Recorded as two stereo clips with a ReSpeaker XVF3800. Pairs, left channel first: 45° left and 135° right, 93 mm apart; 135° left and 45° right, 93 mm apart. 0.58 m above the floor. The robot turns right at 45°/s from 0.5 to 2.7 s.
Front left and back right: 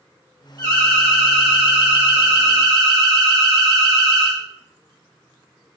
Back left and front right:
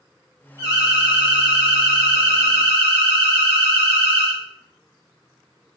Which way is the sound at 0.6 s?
95° left.